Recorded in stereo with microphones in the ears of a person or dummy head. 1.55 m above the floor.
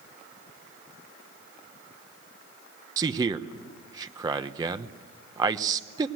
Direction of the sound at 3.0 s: 20° right (ahead or behind).